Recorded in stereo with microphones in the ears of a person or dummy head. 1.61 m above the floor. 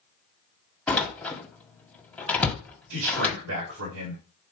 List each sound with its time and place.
0.9 s a door slam: 10° left (ahead or behind), 2 m
2.9 s a man speaking: 75° right (ahead or behind), 5.5 m